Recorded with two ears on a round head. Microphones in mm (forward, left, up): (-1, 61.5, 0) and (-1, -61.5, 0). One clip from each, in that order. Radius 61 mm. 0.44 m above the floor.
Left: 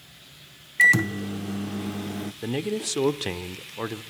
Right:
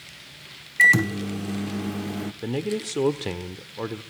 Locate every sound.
0.8 s a microwave: 5° left (ahead or behind), 0.5 m
2.4 s a man speaking: 30° left (ahead or behind), 0.8 m